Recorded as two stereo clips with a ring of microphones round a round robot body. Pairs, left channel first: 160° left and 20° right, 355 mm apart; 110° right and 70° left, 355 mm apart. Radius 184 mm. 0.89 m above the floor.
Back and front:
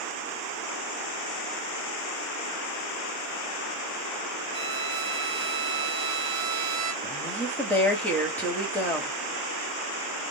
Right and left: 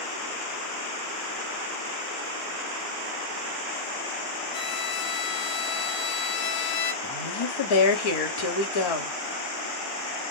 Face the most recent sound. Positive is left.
turn(degrees=-115)